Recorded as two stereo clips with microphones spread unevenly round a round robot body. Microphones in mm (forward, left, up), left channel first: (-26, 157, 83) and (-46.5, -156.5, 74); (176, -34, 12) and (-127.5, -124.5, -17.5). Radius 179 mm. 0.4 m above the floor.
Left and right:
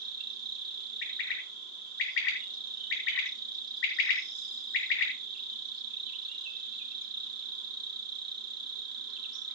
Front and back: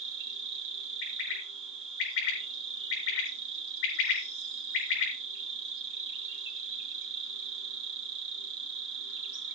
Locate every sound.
0.0 s an insect: 135° right, 3.5 m
1.0 s a bird: 65° left, 7.5 m